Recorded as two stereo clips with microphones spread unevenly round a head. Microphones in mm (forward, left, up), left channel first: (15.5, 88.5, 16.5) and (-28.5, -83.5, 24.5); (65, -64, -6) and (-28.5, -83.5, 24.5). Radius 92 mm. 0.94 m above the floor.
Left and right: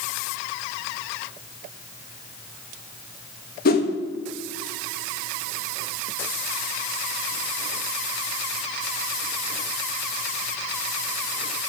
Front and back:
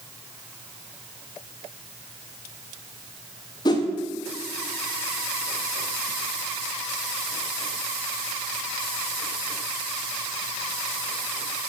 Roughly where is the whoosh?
Ahead left.